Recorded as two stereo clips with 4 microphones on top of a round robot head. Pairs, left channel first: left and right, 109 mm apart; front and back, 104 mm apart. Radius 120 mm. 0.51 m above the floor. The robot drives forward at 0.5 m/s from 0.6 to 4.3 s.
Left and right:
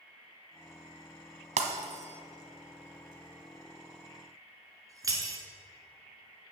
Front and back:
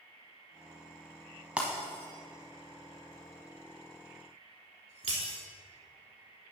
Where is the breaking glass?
100° right, 1.0 m; by 5.4 s 150° right, 1.8 m.